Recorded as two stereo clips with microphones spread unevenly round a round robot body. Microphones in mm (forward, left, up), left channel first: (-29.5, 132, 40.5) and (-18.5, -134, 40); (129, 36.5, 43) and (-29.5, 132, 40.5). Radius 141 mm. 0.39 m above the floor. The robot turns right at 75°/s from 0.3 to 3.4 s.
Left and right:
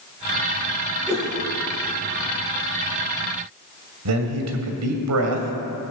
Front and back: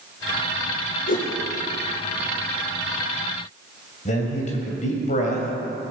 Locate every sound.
1.1 s a whoosh: 10° left, 3 m; by 1.3 s 25° left, 3 m
4.0 s a man speaking: 85° right, 2.5 m